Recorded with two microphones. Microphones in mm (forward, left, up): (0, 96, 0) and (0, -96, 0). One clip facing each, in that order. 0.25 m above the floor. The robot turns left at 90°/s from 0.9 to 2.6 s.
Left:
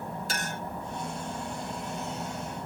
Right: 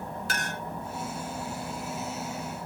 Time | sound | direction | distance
0.3 | a clink | 65° right (ahead or behind) | 2.5 m